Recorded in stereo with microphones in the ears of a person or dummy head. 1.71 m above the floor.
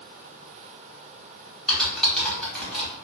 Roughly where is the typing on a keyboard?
Centre.